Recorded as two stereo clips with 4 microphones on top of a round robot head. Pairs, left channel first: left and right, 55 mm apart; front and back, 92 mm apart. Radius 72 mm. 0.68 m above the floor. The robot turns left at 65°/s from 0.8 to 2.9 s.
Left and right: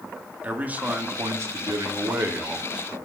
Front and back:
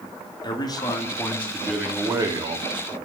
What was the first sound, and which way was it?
A man speaking, 35° right.